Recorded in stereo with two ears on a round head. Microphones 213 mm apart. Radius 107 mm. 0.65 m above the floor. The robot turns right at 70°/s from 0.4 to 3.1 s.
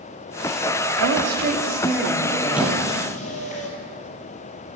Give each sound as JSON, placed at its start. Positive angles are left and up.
{"t": 1.0, "sound": "a woman speaking", "azimuth_deg": -80, "distance_m": 1.3}
{"t": 2.5, "sound": "a squeak", "side_deg": -5, "distance_m": 1.8}